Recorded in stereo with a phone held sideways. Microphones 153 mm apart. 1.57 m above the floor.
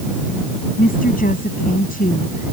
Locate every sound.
0.8 s a woman speaking: 65° left (ahead or behind)